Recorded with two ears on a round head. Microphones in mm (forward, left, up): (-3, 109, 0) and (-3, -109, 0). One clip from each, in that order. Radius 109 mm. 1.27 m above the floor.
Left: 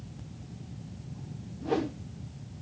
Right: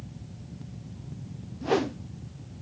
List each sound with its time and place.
1.6 s a whoosh: 40° right (ahead or behind), 0.7 m